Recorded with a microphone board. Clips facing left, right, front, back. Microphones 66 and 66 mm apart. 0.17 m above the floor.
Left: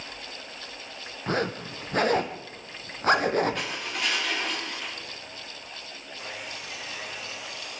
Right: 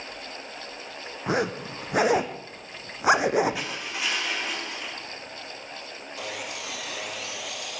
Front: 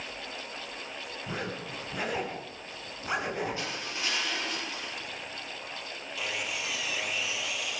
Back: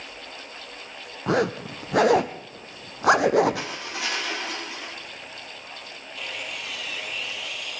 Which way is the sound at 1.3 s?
170° right.